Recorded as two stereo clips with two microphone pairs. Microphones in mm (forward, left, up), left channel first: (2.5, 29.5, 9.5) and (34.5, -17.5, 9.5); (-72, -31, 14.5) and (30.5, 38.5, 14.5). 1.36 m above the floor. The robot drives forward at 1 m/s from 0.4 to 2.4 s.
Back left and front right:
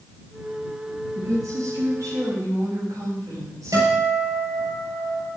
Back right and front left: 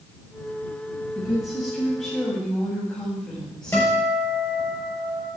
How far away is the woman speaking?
About 7.5 m.